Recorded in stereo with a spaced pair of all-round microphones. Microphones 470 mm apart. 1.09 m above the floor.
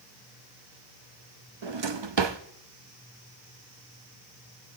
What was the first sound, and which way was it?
A drawer, 65° right (ahead or behind).